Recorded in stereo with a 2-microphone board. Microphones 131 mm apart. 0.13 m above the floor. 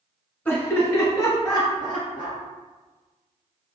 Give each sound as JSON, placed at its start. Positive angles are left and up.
{"t": 0.5, "sound": "laughter", "side_deg": 15, "distance_m": 1.8}